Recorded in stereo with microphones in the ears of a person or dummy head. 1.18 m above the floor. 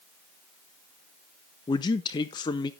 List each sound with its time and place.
1.7 s a man speaking: 25° left (ahead or behind), 0.5 m